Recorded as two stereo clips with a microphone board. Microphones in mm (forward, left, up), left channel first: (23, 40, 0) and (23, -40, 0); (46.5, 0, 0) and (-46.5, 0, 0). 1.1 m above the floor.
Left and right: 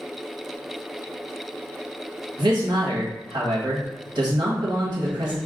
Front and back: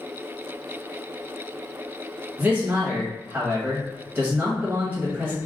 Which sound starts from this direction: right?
A man speaking, at 2.4 s.